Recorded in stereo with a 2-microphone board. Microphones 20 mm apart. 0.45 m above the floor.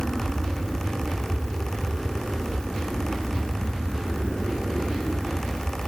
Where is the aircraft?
15° left (ahead or behind); by 5.9 s 35° left (ahead or behind).